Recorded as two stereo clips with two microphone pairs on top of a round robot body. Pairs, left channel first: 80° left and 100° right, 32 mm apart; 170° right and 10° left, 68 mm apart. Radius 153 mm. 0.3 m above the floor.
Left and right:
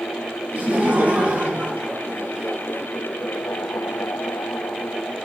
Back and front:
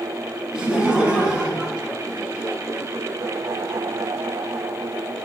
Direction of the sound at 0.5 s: 65° right.